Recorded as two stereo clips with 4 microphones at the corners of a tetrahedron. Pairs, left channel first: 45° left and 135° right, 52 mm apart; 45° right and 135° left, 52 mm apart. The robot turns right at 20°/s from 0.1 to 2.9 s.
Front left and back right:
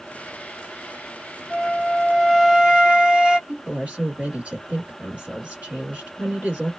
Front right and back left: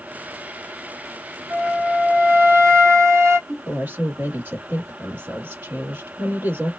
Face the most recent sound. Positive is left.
turn(degrees=175)